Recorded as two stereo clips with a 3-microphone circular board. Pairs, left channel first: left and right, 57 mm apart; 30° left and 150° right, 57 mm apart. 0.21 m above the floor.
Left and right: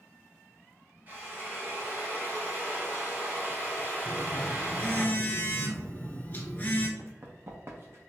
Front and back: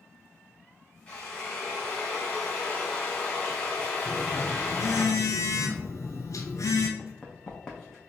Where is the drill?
40° right, 1.4 m.